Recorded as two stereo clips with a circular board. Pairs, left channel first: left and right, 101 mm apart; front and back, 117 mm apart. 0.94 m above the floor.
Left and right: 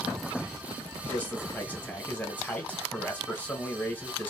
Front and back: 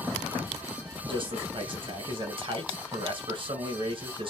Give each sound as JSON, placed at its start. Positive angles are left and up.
{"t": 1.0, "sound": "a man speaking", "azimuth_deg": 155, "distance_m": 1.0}